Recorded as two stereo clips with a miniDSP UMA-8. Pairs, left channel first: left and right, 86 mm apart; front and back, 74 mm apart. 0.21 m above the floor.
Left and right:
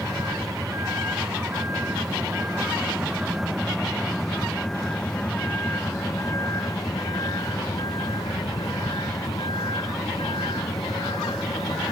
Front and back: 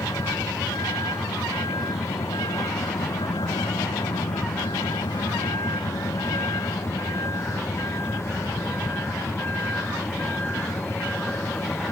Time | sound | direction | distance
0.0 | a vehicle | 35° right | ?